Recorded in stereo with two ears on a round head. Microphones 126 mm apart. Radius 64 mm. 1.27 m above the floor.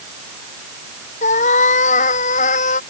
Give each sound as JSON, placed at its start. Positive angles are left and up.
{"t": 1.2, "sound": "a cat meowing", "side_deg": 60}